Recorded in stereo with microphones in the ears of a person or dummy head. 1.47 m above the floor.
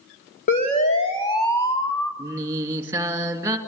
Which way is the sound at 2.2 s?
15° right (ahead or behind).